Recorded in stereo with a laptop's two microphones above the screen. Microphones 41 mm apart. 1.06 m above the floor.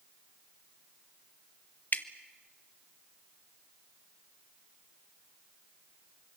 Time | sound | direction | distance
1.9 | dripping | 45° left (ahead or behind) | 1.1 m